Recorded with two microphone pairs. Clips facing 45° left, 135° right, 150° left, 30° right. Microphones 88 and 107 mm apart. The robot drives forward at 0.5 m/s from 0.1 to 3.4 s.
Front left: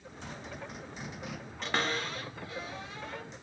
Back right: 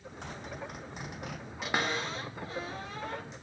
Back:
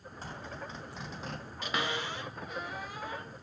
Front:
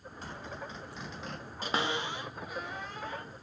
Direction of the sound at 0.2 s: 160° right.